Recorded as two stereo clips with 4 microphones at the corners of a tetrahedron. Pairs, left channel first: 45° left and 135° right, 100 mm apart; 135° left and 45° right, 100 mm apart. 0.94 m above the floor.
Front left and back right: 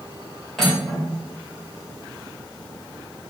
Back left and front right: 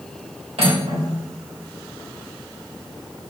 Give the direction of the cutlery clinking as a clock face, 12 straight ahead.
1 o'clock.